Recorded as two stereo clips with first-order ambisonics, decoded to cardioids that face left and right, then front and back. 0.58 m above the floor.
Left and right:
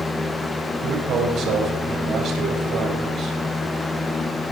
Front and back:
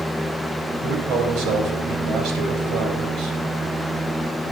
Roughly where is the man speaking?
Behind right.